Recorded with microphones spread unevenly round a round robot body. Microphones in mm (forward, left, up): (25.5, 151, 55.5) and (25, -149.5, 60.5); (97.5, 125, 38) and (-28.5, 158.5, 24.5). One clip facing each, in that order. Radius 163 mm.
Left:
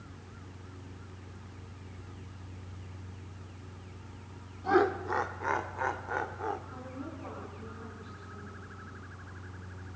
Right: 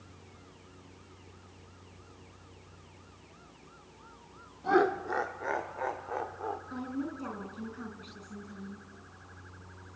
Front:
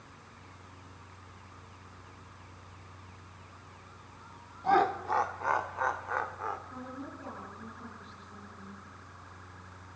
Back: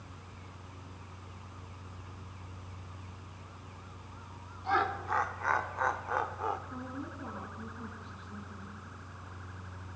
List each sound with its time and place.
4.6 s laughter: 5° left, 1.5 m; by 6.6 s 115° left, 1.5 m
6.7 s a woman speaking: 120° right, 5 m